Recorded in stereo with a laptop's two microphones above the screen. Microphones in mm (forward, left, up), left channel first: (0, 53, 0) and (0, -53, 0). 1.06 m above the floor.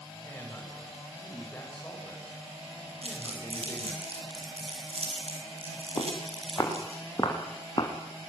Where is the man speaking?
15° left (ahead or behind), 6.5 m.